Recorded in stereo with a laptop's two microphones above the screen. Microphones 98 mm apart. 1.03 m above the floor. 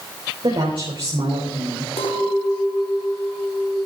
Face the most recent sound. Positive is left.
turn(degrees=85)